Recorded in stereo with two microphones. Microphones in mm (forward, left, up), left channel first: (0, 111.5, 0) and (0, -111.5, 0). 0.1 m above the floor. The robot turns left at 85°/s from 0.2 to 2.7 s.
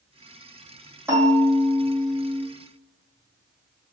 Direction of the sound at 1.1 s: 165° right.